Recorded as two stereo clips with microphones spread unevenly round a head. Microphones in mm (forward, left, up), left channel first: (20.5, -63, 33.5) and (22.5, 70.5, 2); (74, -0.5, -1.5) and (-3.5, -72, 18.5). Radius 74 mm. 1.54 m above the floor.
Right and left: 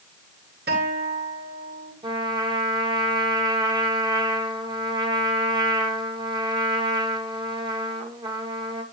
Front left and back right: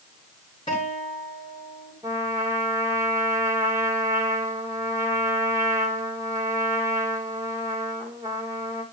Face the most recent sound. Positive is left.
turn(degrees=150)